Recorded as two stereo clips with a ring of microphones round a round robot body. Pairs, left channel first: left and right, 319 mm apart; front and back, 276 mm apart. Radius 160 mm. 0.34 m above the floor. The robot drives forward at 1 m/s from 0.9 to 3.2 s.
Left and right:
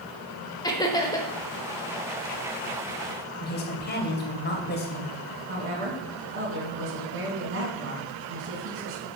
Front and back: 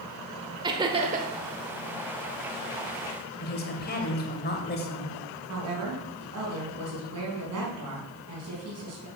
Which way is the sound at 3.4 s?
40° left.